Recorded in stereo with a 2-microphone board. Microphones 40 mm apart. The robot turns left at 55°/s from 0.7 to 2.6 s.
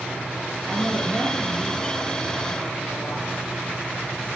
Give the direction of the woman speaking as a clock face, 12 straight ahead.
5 o'clock.